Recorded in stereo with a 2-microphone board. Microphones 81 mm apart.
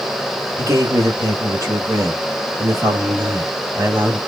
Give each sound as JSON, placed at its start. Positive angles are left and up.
{"t": 0.6, "sound": "a man speaking", "side_deg": -40, "distance_m": 1.2}